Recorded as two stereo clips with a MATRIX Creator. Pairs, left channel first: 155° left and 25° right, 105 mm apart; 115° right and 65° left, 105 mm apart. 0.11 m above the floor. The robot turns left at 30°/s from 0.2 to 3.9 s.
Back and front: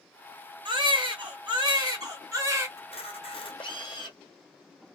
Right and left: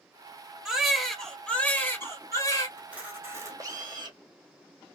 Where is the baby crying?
15° right, 1.5 m; by 2.7 s 75° right, 1.5 m.